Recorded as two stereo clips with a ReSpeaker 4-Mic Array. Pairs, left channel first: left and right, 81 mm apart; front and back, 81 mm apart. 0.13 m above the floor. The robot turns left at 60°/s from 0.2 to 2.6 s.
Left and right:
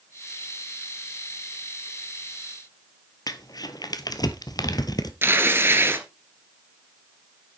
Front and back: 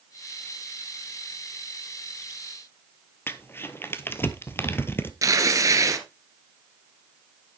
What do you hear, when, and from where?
3.3 s crumpling: 60° left, 1.0 m
5.2 s tearing paper: 145° right, 1.5 m